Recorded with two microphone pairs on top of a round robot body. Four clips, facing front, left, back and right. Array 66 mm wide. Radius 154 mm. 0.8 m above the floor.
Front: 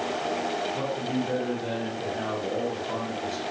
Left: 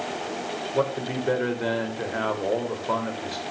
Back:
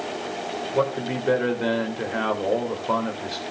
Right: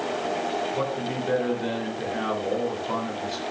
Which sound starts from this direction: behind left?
A man speaking, at 0.7 s.